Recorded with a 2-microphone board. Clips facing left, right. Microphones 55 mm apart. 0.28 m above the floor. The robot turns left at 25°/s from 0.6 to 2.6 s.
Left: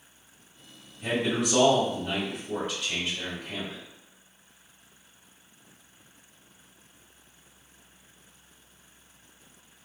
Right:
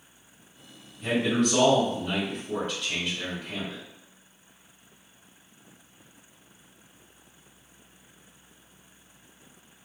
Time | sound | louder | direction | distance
1.0 | a man speaking | right 3 dB | 15° left (ahead or behind) | 1.5 m